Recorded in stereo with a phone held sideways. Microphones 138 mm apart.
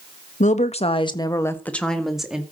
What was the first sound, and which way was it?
A woman speaking, 70° left (ahead or behind).